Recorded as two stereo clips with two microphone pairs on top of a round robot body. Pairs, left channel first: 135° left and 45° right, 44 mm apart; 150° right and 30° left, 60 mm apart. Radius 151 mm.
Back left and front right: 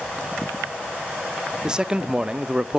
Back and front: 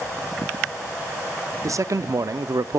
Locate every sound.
1.6 s a man speaking: 45° left, 0.9 m